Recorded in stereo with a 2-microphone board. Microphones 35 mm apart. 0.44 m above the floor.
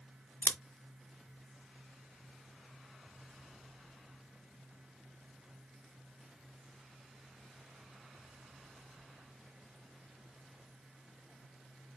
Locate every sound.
0.4 s scissors: 70° left (ahead or behind), 0.6 m